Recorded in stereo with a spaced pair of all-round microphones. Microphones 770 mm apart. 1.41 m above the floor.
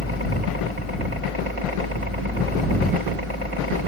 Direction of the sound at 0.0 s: 40° right (ahead or behind).